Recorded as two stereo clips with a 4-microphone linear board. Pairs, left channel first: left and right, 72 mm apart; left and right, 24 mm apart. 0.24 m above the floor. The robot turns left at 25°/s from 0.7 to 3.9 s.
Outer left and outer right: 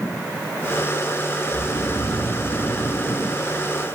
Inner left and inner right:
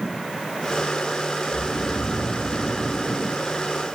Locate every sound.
1.5 s snoring: straight ahead, 7.5 m; by 3.4 s 45° right, 7.5 m